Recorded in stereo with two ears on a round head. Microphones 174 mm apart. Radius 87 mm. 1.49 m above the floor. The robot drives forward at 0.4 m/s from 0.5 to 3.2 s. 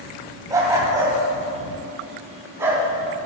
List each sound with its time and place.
0.5 s a dog barking: 20° right (ahead or behind), 2.5 m; by 2.8 s 15° right (ahead or behind), 3 m